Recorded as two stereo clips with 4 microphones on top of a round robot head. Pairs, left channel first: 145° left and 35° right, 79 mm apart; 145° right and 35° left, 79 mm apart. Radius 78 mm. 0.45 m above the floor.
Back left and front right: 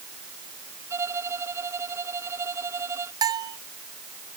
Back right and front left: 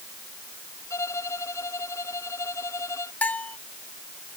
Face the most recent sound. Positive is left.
turn(degrees=-75)